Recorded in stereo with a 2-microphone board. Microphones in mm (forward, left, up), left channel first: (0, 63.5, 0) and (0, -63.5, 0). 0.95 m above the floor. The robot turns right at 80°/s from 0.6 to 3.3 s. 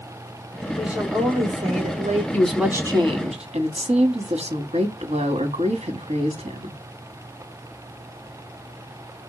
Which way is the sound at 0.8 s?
Straight behind.